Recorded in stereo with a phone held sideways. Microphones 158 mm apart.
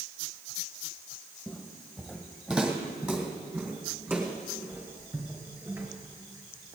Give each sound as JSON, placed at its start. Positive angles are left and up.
{"t": 1.5, "sound": "footsteps", "side_deg": 5, "distance_m": 1.9}